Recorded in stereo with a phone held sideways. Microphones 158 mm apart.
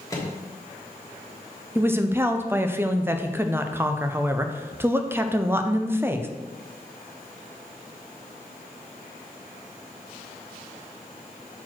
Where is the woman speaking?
15° right (ahead or behind), 0.6 m.